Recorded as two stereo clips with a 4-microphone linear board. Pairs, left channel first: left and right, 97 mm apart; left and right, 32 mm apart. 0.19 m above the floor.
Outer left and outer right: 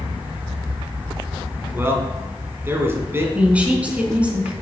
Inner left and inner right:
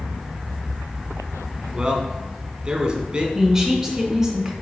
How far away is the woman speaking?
About 1.7 m.